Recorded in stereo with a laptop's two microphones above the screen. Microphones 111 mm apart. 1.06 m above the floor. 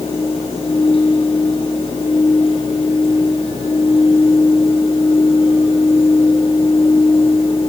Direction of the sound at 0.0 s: 55° left (ahead or behind).